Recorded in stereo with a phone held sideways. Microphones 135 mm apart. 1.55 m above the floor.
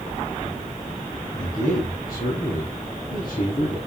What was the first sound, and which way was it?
A man speaking, 75° left (ahead or behind).